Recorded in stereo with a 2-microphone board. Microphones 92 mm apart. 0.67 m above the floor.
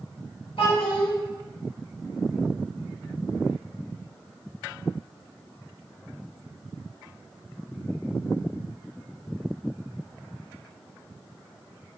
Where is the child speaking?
85° left, 1.9 m.